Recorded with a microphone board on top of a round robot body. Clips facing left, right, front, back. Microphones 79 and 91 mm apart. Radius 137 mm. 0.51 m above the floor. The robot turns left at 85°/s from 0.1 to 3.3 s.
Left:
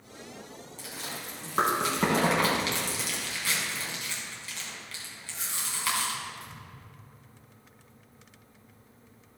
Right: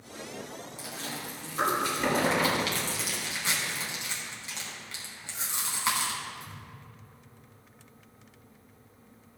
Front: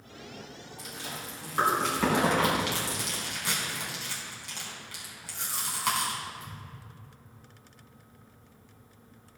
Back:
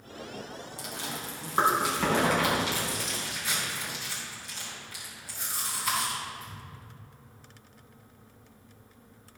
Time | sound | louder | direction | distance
0.8 | chewing | even, back 2 dB | 170° right | 4 m